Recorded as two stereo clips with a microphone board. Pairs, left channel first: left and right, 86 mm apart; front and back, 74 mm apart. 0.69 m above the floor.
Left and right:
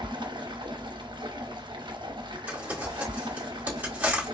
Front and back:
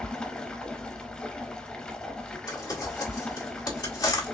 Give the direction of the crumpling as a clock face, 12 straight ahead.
1 o'clock.